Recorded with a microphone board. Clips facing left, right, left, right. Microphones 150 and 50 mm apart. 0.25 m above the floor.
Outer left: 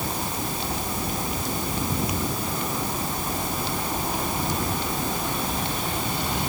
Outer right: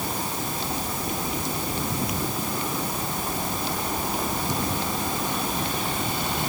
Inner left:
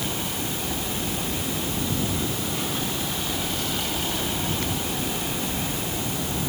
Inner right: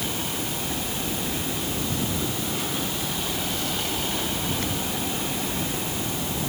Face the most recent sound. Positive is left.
No sound to turn to.